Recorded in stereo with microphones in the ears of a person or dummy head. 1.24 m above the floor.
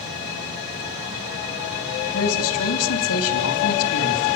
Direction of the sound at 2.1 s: 80° left.